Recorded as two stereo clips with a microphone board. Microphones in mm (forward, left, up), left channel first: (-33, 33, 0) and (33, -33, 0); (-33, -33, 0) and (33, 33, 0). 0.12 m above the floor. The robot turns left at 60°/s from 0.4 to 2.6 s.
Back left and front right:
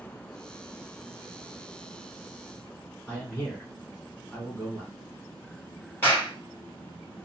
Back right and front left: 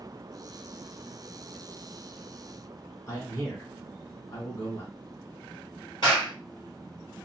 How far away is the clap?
About 2.5 m.